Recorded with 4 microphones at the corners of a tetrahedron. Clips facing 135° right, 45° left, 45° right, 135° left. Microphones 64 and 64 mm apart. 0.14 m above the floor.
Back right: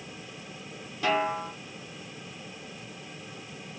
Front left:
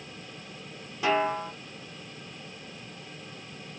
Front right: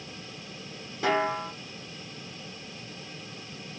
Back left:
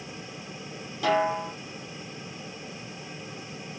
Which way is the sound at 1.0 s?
15° right.